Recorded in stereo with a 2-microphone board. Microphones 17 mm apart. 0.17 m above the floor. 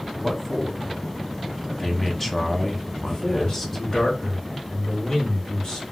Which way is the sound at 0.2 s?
15° left (ahead or behind).